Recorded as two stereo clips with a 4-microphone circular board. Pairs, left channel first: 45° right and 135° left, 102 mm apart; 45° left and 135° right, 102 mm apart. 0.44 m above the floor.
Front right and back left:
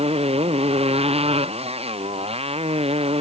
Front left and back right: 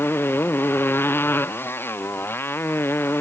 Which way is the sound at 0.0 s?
115° left.